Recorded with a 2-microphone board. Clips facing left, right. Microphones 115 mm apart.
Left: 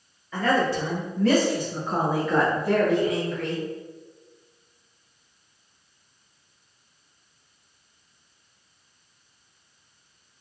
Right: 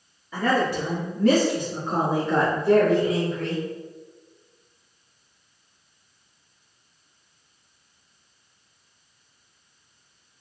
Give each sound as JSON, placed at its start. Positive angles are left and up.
{"t": 0.3, "sound": "a woman speaking", "side_deg": -10, "distance_m": 1.8}